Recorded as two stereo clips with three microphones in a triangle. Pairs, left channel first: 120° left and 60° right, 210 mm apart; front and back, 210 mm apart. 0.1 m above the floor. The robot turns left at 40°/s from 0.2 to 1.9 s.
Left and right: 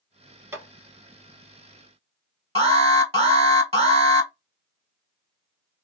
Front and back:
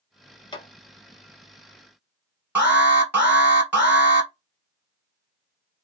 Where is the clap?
Straight ahead, 1.0 m; by 0.7 s 5° right, 1.0 m.